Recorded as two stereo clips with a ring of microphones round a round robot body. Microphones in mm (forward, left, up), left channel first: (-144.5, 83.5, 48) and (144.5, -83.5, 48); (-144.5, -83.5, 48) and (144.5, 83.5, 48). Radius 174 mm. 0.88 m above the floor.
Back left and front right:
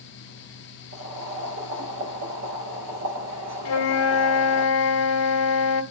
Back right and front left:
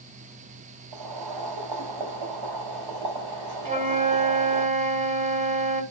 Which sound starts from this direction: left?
A flute, at 3.6 s.